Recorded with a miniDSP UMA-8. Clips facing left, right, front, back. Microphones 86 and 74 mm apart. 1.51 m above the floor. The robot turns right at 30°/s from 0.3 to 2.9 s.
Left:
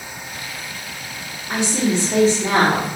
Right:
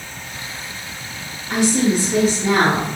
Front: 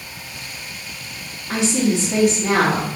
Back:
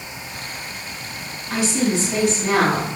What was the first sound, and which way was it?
A woman speaking, 15° left.